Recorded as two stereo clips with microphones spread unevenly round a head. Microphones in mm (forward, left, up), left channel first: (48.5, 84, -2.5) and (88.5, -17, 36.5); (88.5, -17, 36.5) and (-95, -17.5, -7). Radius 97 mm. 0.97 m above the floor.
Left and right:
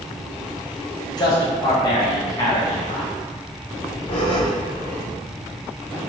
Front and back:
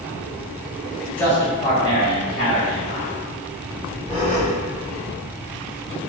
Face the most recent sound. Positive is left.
turn(degrees=65)